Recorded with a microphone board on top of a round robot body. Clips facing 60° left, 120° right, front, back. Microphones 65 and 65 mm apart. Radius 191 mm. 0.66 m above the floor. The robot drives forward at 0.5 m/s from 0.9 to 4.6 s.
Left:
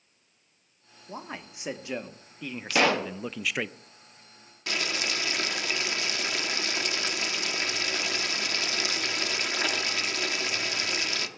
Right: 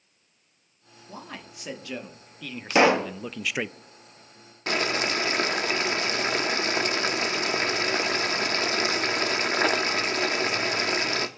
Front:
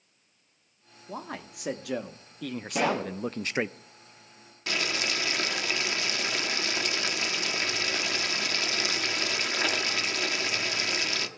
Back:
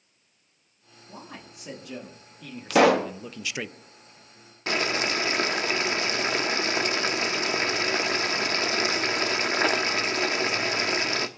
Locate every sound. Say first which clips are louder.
1.1 s a man speaking: left 2 dB, front 5 dB; 5° right, 1.6 m; by 3.7 s 45° right, 0.5 m
2.7 s a pop: right 5 dB, back 9 dB; 170° left, 0.7 m
4.7 s boiling: right 5 dB, back 4 dB; 145° right, 1.4 m